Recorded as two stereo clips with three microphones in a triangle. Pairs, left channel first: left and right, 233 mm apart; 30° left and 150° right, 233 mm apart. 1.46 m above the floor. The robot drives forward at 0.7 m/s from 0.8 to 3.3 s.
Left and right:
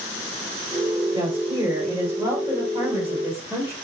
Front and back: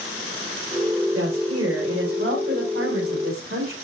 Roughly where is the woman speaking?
Behind.